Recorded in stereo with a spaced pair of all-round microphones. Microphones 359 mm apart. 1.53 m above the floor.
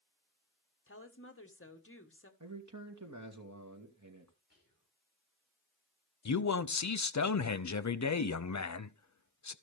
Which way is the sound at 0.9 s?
40° left (ahead or behind).